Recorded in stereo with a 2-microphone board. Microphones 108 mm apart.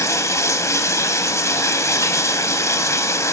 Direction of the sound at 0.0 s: 25° left (ahead or behind).